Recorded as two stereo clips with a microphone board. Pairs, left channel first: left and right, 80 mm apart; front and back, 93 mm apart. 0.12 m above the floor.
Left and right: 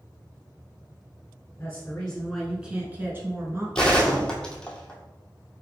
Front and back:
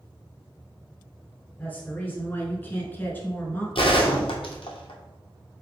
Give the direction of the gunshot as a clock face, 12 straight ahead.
12 o'clock.